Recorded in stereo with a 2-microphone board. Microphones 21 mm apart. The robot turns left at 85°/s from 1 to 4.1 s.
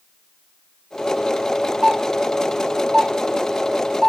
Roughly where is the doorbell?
Centre.